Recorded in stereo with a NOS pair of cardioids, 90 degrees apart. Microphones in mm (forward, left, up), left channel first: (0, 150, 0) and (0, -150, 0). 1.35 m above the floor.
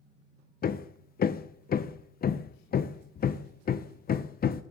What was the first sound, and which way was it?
Hammering, 30° left.